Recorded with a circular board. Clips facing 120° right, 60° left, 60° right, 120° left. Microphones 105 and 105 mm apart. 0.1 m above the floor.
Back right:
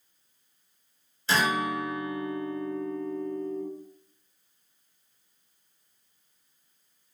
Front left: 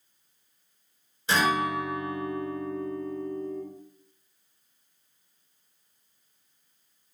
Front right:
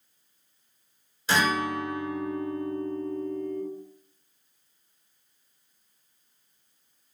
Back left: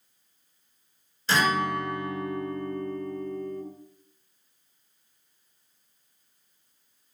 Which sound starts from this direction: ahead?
A guitar, at 1.3 s.